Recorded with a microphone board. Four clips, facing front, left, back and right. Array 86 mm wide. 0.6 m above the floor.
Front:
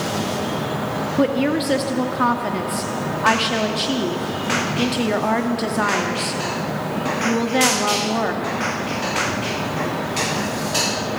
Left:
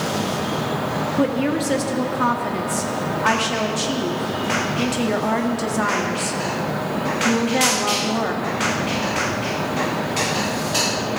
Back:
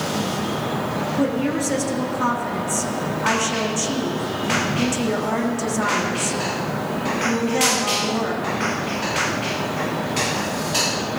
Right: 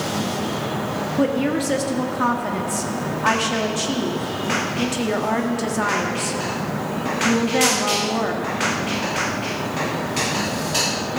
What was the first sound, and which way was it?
A woman speaking, 5° left.